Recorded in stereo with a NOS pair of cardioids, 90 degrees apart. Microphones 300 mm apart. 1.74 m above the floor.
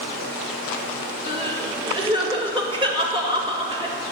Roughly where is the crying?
Ahead.